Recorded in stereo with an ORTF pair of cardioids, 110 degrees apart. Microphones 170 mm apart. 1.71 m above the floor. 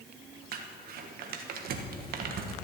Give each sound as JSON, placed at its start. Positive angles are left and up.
{"t": 0.5, "sound": "crumpling", "azimuth_deg": -65, "distance_m": 1.5}